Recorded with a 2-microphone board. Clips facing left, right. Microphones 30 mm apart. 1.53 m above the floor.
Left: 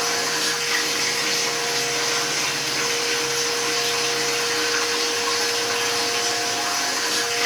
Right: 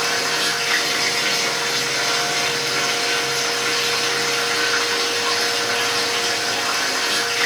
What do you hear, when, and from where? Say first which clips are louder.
0.0 s running water: right 3 dB; 75° right (ahead or behind), 4 m